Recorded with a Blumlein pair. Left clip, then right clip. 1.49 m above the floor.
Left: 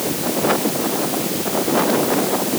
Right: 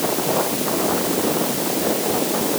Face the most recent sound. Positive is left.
No sound to turn to.